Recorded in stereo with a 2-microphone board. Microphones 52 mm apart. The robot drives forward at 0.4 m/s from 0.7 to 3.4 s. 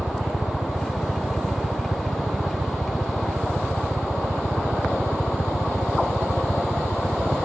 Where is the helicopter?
10° left (ahead or behind); by 7.5 s 15° left (ahead or behind).